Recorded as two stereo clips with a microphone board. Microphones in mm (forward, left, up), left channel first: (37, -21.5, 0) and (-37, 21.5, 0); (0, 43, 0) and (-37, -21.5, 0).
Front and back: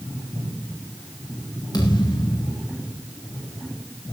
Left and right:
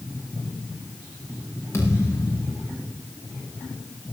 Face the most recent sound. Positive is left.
turn(degrees=5)